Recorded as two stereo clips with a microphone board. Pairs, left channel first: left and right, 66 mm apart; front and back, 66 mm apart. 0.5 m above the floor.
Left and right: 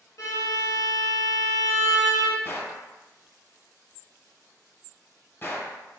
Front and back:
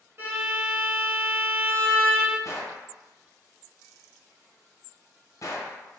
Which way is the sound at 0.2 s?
125° left.